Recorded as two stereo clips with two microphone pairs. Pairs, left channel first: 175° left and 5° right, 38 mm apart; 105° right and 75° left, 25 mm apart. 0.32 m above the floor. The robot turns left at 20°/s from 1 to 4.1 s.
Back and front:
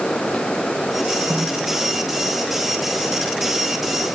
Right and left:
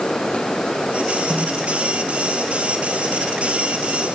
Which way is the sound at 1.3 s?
25° left.